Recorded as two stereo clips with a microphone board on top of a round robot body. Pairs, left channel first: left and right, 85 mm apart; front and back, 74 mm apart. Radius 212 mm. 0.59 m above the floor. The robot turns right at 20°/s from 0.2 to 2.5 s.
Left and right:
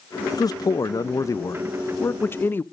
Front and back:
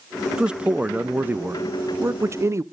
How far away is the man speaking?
About 0.8 m.